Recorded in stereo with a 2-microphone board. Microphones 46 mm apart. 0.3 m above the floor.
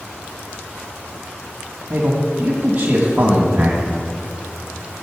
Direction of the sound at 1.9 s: 50° right (ahead or behind).